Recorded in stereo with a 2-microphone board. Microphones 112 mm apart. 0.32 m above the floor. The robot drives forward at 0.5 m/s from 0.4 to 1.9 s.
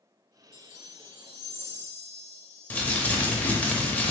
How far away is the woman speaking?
I don't hear a woman speaking.